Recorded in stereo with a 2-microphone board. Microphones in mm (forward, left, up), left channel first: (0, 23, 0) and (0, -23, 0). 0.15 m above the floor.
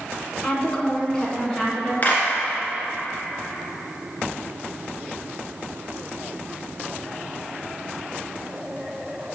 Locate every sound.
0.4 s a woman speaking: 15° left (ahead or behind), 1.3 m; by 1.9 s 10° left (ahead or behind), 1.7 m
2.0 s a clap: 35° left (ahead or behind), 1.9 m